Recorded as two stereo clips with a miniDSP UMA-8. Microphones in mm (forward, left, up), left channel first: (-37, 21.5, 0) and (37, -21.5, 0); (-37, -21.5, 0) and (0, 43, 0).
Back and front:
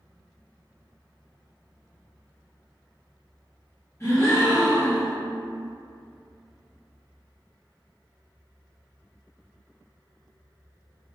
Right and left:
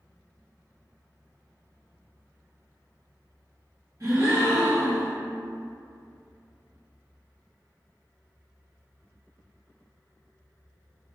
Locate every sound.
4.0 s a gasp: 100° left, 1.0 m